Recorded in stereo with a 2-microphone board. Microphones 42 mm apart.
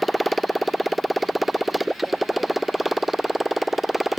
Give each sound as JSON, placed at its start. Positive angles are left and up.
{"t": 0.0, "sound": "a motorcycle", "side_deg": 0}